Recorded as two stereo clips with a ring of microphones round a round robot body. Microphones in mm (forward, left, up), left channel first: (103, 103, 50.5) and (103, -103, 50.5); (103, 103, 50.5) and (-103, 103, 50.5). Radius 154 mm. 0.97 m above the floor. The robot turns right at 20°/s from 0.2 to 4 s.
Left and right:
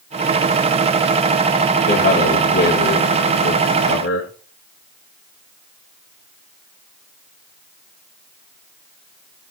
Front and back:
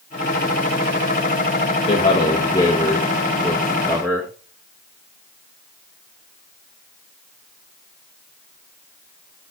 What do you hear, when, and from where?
1.9 s a man speaking: 60° left, 1.5 m; by 4.3 s 100° left, 1.5 m